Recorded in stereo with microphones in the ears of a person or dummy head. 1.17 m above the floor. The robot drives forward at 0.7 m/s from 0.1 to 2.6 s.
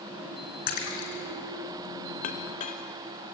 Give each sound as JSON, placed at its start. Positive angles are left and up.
{"t": 0.7, "sound": "a splash", "side_deg": 60, "distance_m": 4.5}
{"t": 2.2, "sound": "a clink", "side_deg": 55, "distance_m": 1.7}